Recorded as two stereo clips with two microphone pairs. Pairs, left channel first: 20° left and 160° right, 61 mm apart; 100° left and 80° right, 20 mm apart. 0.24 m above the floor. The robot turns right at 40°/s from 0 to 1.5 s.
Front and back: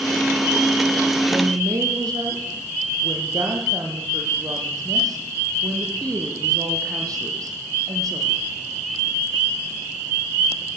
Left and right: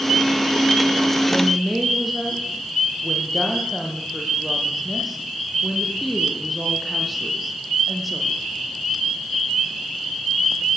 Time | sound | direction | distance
1.3 | a woman speaking | 175° right | 8 m